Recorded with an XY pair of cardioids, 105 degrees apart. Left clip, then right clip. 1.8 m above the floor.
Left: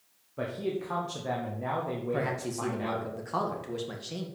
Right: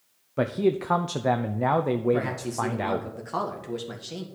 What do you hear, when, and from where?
0.4 s a man speaking: 65° right, 0.6 m
2.1 s a man speaking: 10° right, 1.8 m